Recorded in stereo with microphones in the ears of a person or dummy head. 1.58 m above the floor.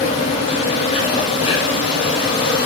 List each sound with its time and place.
0.0 s an insect: 30° left (ahead or behind), 6.5 m